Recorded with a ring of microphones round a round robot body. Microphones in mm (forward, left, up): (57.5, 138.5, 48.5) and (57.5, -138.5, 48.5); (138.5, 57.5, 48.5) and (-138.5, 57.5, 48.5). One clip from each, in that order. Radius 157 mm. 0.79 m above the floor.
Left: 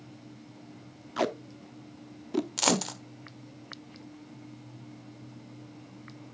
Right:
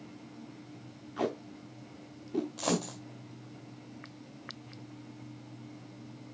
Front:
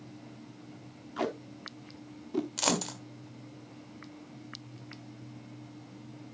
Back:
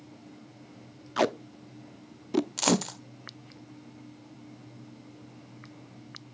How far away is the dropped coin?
About 1.3 m.